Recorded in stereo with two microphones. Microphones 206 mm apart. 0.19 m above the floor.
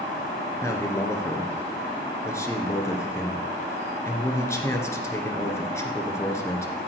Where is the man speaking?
15° left (ahead or behind), 2.5 m.